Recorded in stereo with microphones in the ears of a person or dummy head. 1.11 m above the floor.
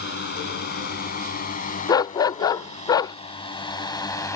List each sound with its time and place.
0.0 s a drone: 60° left (ahead or behind); by 4.4 s 15° left (ahead or behind)
1.9 s a dog barking: 25° left (ahead or behind)